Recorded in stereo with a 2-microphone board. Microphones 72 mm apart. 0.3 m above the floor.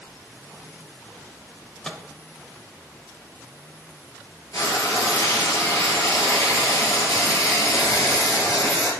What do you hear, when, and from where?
1.9 s a microwave: 10° left (ahead or behind), 0.7 m
4.5 s frying: 50° left (ahead or behind), 2.5 m